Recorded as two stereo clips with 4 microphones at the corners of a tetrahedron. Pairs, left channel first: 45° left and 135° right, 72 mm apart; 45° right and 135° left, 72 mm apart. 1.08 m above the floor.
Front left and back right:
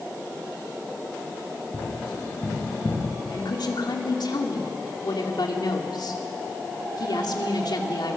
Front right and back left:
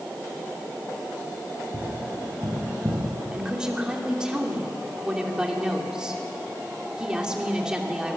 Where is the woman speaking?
55° left, 3 m.